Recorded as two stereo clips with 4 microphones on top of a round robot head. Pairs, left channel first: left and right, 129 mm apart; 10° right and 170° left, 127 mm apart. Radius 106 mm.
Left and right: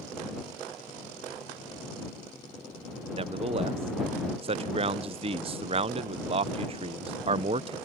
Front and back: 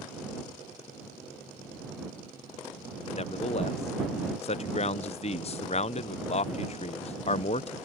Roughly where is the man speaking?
Ahead right.